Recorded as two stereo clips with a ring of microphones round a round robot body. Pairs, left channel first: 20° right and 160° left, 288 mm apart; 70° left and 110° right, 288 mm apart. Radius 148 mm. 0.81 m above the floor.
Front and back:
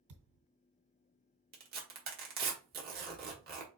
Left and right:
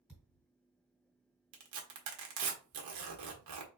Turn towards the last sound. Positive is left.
turn(degrees=-145)